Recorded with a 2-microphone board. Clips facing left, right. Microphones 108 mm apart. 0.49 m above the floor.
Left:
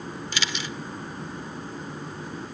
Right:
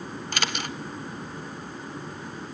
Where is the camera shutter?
50° right (ahead or behind), 0.8 m.